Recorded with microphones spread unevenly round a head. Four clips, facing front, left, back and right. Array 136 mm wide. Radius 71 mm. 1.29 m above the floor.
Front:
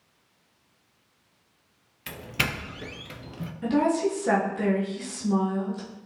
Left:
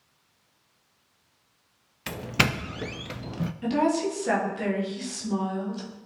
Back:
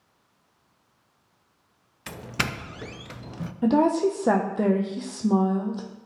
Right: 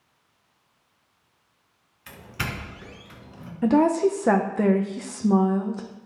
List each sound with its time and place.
2.1 s a doorbell: 95° left, 0.6 m
3.6 s a woman speaking: 125° right, 1.1 m